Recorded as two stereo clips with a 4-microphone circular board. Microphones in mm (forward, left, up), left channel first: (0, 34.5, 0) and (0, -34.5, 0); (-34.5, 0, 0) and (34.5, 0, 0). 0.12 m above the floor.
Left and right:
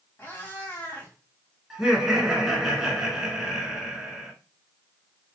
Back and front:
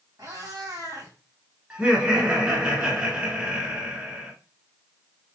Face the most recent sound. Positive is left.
turn(degrees=-20)